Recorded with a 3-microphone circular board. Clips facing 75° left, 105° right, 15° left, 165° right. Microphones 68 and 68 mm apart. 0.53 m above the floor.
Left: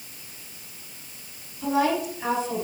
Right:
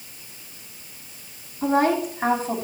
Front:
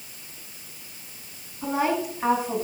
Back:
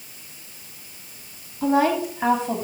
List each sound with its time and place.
1.6 s a woman speaking: 155° right, 4 m; by 2.6 s 150° right, 3 m